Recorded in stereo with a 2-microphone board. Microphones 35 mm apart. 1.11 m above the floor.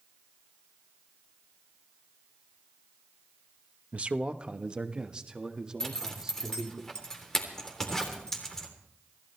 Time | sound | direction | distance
3.9 | a man speaking | 35° right (ahead or behind) | 0.9 m
5.8 | a zipper | 15° left (ahead or behind) | 3.5 m